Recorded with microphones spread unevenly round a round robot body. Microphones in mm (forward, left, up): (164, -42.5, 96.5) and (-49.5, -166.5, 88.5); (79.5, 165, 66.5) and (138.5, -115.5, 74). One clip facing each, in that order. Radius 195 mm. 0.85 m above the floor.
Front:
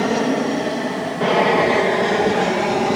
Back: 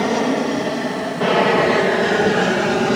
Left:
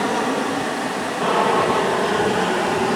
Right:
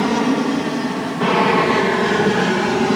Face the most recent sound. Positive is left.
turn(degrees=-90)